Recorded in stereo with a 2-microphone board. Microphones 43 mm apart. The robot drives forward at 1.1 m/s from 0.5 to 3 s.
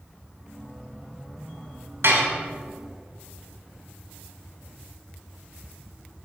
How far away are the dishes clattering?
About 2 m.